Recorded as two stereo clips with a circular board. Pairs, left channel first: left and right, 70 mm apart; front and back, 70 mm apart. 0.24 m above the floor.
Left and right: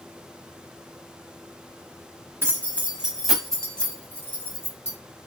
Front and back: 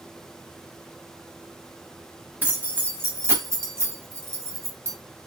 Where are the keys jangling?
125° right, 0.9 m; by 5.0 s 135° left, 1.2 m.